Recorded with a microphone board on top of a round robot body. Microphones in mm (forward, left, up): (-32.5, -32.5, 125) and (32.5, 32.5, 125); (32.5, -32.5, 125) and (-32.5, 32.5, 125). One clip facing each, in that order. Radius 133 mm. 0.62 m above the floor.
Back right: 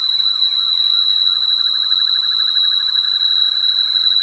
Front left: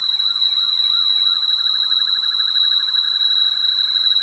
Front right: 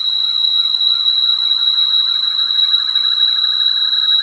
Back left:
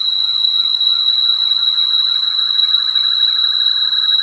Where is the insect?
150° right, 0.8 m.